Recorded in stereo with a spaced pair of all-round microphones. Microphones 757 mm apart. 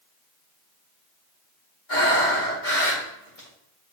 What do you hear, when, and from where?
1.9 s breathing: 75° left (ahead or behind), 2.5 m